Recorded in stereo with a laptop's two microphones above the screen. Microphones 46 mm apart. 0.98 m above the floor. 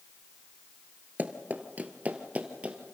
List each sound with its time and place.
1.2 s running footsteps: 40° right (ahead or behind), 1.2 m; by 2.8 s 30° right (ahead or behind), 1.6 m